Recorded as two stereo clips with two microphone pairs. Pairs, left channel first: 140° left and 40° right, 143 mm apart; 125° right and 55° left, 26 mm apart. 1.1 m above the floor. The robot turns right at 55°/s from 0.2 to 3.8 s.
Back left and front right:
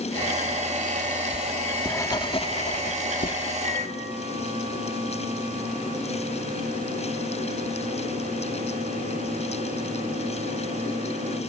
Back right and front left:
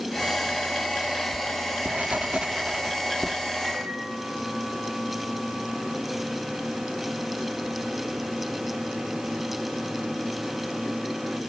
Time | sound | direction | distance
1.3 | writing | 35° left | 1.3 m
3.6 | a microwave | 20° right | 5.5 m